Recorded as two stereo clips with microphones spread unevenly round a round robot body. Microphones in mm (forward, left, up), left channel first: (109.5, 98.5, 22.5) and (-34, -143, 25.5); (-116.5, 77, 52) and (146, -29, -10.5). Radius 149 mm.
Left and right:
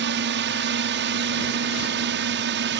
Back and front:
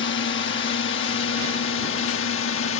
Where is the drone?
155° right; by 2.8 s 160° right.